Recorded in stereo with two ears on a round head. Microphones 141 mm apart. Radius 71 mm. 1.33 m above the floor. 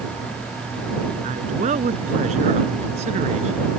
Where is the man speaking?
45° right (ahead or behind).